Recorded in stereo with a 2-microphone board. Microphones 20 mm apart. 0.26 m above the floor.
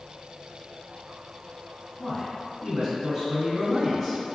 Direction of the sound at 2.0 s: Centre (ahead or behind).